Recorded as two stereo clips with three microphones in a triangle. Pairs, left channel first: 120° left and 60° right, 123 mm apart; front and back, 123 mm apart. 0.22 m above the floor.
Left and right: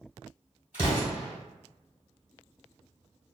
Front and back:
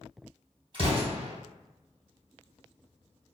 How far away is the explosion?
About 1.8 m.